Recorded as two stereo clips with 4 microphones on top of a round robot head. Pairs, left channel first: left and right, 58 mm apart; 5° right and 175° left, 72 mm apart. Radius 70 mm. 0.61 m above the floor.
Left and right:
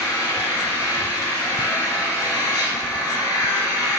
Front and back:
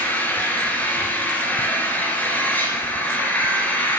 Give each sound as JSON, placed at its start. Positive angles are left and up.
{"t": 0.0, "sound": "an engine running", "azimuth_deg": 65, "distance_m": 3.5}